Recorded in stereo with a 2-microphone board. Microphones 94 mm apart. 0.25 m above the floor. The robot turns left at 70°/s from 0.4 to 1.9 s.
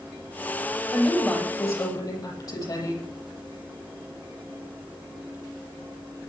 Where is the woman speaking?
160° right, 9 m; by 3.1 s 130° left, 9 m.